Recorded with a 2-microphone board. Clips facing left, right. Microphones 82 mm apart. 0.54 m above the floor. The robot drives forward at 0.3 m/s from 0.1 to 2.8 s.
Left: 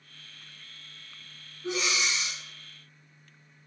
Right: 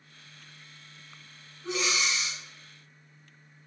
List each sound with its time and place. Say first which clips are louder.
1.6 s breathing: even; 5° left (ahead or behind), 0.9 m